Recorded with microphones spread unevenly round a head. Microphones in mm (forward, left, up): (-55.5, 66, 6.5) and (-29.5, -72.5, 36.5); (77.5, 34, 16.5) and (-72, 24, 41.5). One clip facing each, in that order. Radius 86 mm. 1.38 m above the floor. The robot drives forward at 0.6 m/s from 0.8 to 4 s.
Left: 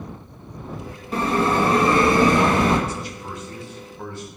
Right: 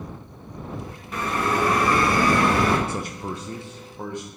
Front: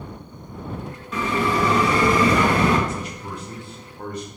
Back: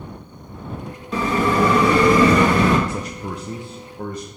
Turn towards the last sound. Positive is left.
turn(degrees=-150)